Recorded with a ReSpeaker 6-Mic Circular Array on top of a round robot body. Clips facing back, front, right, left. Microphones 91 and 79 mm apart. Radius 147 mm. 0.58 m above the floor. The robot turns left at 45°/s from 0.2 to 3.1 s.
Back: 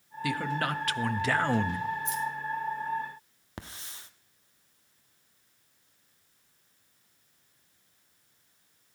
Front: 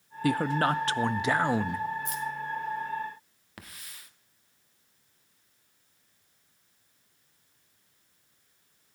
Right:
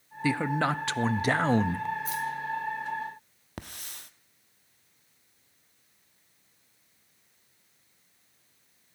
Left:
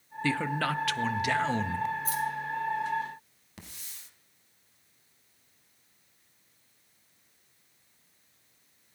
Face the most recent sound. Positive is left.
turn(degrees=-120)